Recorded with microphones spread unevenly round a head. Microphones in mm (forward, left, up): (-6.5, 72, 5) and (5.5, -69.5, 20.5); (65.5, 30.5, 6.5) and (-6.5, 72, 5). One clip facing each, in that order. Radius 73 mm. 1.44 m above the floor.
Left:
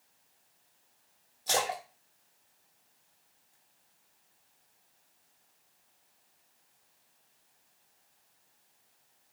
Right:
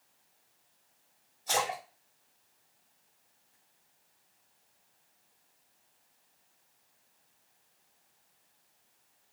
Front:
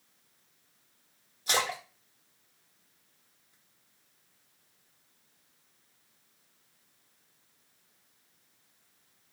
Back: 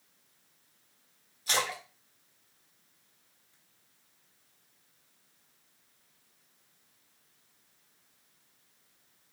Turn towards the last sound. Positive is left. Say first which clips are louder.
# even, front 2 dB
turn(degrees=35)